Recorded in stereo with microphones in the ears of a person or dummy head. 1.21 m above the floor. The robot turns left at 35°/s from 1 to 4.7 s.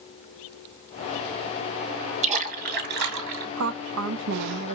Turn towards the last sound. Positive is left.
turn(degrees=-130)